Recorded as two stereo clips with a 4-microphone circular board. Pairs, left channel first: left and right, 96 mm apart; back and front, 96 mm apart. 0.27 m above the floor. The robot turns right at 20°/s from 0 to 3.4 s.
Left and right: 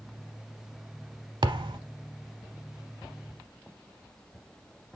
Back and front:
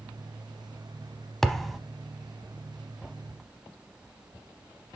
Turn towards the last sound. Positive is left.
turn(degrees=-55)